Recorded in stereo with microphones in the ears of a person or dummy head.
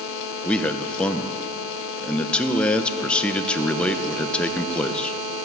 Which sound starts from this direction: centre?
A man speaking, at 0.5 s.